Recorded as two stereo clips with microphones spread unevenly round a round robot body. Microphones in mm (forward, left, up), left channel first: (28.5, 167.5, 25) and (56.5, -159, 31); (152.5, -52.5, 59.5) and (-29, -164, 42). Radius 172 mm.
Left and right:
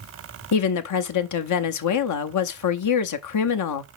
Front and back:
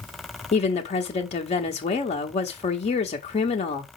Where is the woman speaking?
95° left, 0.7 m.